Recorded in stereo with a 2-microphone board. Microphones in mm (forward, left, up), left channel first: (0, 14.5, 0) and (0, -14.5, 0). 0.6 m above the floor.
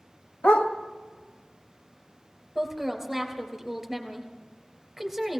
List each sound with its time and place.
0.4 s a dog barking: 50° left (ahead or behind), 1.1 m
2.5 s a woman speaking: 5° right (ahead or behind), 3 m